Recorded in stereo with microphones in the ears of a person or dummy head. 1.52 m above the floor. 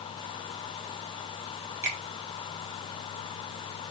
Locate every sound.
1.8 s a finger snap: 20° right (ahead or behind), 2 m